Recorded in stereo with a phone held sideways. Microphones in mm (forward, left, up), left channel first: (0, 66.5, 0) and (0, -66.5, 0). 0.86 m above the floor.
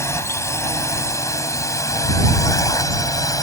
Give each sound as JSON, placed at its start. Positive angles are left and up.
{"t": 0.0, "sound": "a drone", "side_deg": 20}